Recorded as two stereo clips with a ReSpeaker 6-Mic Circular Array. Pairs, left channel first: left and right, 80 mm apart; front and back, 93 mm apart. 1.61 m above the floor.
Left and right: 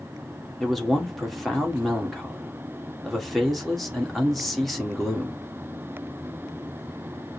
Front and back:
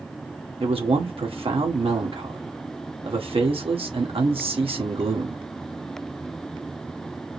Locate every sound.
0.6 s a man speaking: straight behind, 1.4 m